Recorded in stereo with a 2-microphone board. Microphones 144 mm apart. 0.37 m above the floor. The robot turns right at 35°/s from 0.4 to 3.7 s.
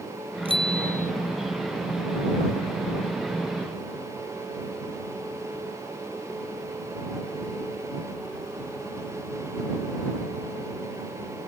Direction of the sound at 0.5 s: 40° right (ahead or behind).